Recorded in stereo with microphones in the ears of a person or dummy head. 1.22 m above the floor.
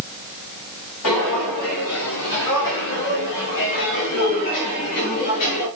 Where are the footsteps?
75° left (ahead or behind), 5 m; by 5.7 s 45° left (ahead or behind), 7 m.